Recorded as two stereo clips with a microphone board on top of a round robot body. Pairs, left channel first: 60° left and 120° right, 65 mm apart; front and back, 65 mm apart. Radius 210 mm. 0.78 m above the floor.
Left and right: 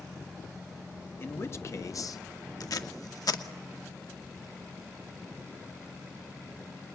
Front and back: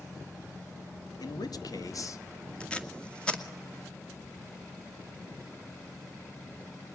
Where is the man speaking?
5° left, 2 m; by 2.2 s 40° left, 1.6 m.